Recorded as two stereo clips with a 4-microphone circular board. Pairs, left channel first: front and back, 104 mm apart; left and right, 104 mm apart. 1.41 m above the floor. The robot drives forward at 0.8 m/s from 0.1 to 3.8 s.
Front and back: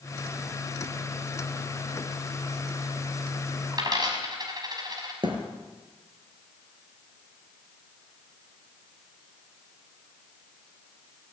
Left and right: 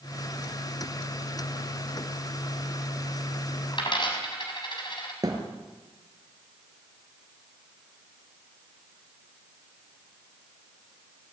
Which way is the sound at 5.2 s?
140° right.